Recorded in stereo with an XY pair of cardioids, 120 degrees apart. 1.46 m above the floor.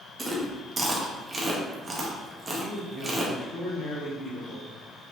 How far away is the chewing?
About 0.7 m.